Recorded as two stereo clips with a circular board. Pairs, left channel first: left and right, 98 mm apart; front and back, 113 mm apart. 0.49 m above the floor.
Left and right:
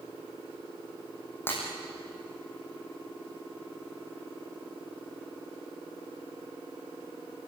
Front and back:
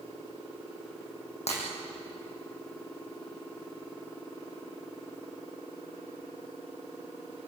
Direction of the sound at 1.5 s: 20° left.